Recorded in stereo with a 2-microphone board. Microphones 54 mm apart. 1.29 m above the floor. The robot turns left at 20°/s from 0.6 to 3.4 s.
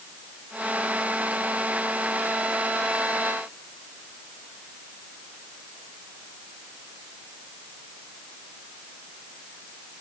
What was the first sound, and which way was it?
Only background noise.